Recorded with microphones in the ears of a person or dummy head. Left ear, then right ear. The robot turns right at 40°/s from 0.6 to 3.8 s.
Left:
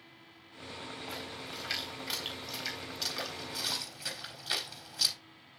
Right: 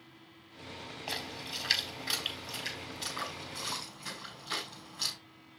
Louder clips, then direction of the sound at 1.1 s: Right 7 dB; 40° right (ahead or behind).